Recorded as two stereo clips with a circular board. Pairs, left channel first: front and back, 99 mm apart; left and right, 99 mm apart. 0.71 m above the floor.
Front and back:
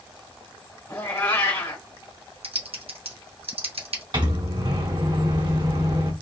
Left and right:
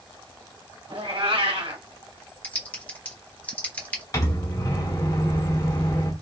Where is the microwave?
145° left, 1.2 m.